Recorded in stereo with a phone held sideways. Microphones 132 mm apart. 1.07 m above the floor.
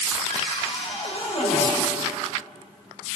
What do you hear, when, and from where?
0.3 s a cupboard door: 55° left (ahead or behind), 5 m